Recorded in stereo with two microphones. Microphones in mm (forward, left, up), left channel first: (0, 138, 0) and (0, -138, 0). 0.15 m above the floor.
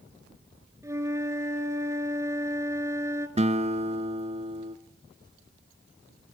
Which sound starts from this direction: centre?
A flute, at 0.8 s.